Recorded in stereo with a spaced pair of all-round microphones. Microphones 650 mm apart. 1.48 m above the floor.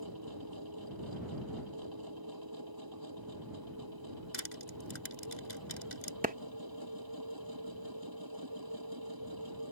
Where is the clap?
10° right (ahead or behind).